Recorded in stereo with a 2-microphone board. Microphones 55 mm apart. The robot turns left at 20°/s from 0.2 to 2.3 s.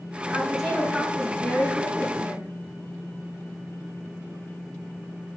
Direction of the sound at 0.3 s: 170° right.